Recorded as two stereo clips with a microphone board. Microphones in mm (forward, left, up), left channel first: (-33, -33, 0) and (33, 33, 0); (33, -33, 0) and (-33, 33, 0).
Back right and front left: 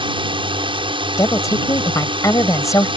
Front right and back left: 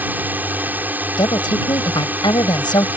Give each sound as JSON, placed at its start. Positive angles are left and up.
{"t": 0.0, "sound": "a drone", "azimuth_deg": 65}
{"t": 1.2, "sound": "a woman speaking", "azimuth_deg": -80}